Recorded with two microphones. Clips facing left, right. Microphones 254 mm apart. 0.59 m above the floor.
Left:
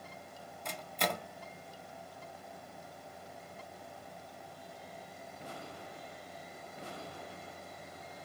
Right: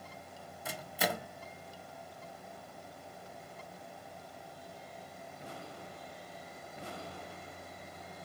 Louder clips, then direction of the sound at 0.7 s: Right 1 dB; 10° right (ahead or behind).